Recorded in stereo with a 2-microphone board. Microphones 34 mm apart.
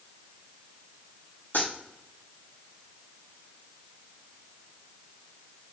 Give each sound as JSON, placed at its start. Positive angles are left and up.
{"t": 1.5, "sound": "a dropped coin", "side_deg": 85, "distance_m": 5.5}